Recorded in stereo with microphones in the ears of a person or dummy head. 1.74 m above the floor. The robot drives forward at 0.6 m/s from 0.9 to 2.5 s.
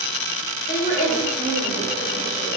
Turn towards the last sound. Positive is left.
turn(degrees=35)  # may be behind; listen again after turning